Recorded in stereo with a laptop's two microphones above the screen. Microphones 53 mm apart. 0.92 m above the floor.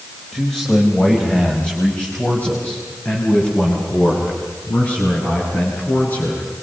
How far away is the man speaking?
About 4.5 m.